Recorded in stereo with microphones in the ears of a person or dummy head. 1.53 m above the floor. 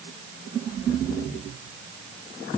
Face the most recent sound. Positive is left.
No sound to turn to.